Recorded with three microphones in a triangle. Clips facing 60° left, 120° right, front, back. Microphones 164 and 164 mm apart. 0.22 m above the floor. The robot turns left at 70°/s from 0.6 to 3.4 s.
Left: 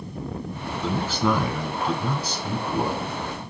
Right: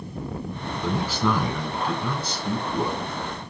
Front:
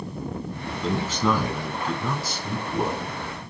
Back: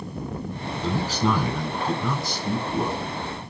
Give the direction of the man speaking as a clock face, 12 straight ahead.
6 o'clock.